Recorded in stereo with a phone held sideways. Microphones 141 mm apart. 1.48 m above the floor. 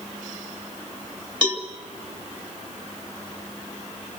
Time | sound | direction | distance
1.4 | a cowbell | 30° right (ahead or behind) | 2.5 m